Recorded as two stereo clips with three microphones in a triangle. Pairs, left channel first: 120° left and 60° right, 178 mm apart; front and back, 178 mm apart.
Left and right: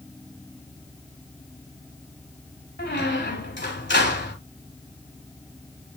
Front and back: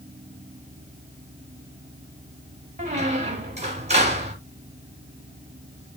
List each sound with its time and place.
2.8 s a squeak: 130° left, 2.5 m